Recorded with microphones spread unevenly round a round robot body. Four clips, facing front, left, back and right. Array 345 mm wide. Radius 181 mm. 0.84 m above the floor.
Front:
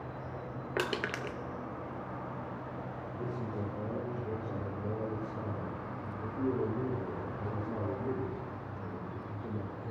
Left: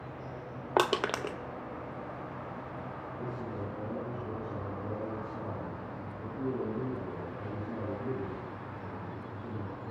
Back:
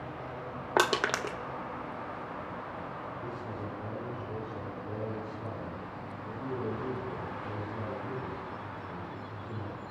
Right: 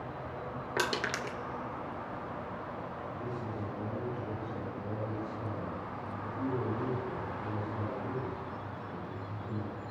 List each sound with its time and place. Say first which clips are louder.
0.8 s crushing: left 6 dB, back 7 dB; 140° left, 0.7 m
3.2 s a man speaking: left 2 dB, front 1 dB; 15° left, 9.5 m